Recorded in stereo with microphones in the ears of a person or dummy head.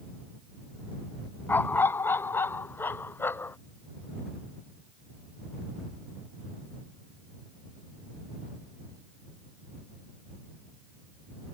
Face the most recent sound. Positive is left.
turn(degrees=15)  # may be behind; listen again after turning